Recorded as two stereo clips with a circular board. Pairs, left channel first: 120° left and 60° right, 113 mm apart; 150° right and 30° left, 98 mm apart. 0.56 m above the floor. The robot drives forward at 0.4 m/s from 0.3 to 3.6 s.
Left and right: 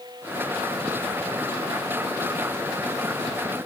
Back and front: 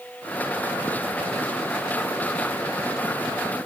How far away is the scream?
No scream in this recording.